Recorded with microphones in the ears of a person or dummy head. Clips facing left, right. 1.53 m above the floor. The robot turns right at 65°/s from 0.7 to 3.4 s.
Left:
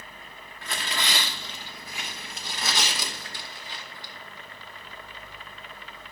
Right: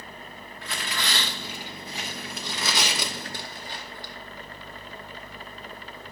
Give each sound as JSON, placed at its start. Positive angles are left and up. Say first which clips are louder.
{"t": 0.6, "sound": "tearing paper", "louder": "left 1 dB", "side_deg": 35, "distance_m": 1.1}